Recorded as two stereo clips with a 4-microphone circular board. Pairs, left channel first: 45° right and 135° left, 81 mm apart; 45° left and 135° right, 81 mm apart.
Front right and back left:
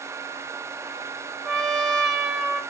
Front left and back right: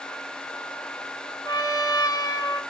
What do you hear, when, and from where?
1.4 s a trumpet: 40° left, 1.0 m